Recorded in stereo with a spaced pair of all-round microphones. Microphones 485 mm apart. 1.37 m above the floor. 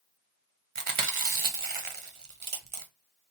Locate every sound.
0.8 s chewing: 80° right, 0.7 m